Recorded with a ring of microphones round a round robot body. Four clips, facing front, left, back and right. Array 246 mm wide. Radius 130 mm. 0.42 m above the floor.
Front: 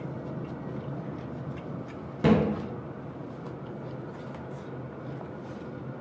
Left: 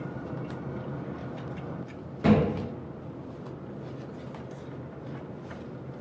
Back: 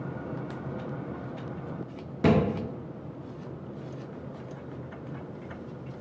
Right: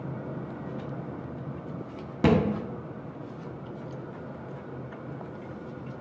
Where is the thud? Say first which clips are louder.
Even, even; 90° right, 0.9 m.